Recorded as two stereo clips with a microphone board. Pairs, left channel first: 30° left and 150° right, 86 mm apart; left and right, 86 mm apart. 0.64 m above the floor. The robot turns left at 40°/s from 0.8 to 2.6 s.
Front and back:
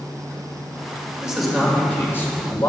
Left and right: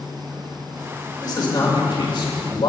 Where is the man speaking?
130° left, 2.5 m; by 2.7 s 75° left, 2.5 m.